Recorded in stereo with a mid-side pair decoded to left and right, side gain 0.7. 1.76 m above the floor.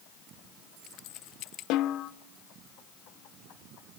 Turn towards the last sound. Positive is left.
turn(degrees=60)